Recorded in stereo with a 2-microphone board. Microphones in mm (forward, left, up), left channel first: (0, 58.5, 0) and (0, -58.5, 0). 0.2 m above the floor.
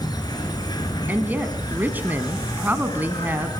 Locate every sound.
0.0 s an insect: 35° left (ahead or behind), 2 m
1.1 s a woman speaking: 15° right (ahead or behind), 1.4 m